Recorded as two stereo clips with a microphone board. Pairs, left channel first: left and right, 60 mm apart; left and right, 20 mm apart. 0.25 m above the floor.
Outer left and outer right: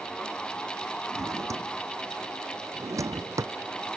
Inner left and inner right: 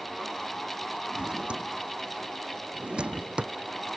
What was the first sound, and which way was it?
A drawer, 60° right (ahead or behind).